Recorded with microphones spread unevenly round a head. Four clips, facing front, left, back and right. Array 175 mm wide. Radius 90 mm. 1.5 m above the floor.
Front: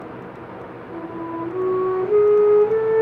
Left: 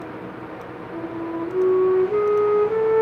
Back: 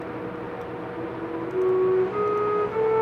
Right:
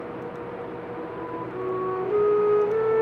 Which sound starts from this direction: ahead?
A flute, at 0.9 s.